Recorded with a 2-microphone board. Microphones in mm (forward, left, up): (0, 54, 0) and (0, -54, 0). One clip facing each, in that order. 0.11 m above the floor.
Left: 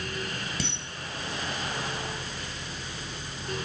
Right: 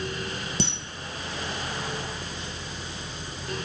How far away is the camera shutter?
About 1.7 m.